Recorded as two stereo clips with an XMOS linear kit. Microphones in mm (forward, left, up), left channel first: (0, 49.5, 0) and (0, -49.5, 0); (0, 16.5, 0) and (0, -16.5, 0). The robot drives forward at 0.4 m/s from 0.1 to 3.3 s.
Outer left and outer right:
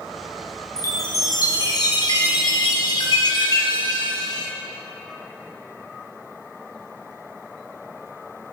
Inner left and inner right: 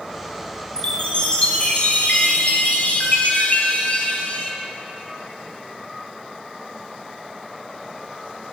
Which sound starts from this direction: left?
A chime, at 0.8 s.